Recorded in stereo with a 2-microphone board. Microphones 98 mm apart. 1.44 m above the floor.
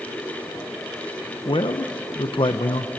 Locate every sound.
1.4 s a man speaking: 60° left (ahead or behind), 0.8 m